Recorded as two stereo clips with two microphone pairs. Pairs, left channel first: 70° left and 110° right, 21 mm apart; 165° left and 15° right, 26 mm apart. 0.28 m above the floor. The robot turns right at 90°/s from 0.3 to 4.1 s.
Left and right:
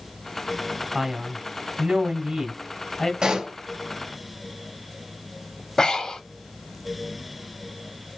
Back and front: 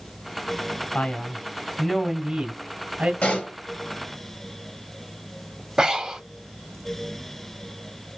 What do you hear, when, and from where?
0.9 s a man speaking: 170° left, 2.0 m; by 3.1 s 5° left, 2.0 m
3.2 s a pop: 165° right, 3.5 m; by 3.5 s 130° right, 3.5 m
5.8 s breathing: 35° left, 1.2 m